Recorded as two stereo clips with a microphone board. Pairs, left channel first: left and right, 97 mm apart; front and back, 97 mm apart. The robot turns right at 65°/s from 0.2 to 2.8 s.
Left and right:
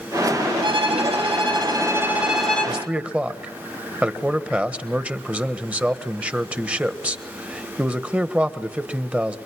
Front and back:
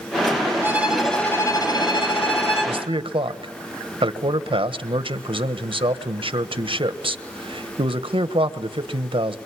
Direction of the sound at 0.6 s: 115° right.